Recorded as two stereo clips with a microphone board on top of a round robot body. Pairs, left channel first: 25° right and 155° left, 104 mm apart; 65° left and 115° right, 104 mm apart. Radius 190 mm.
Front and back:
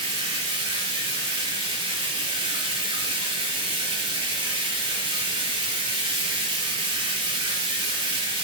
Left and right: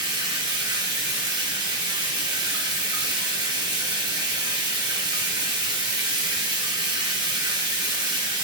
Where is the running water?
160° right, 1.6 m.